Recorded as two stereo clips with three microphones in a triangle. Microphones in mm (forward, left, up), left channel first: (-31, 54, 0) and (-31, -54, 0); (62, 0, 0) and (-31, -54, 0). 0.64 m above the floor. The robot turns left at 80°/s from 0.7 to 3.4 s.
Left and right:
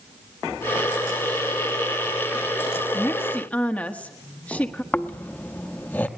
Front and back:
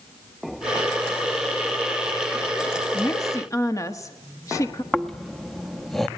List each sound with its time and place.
2.9 s a woman speaking: 65° left, 1.2 m; by 4.8 s 30° left, 1.2 m
4.9 s snoring: 115° left, 0.8 m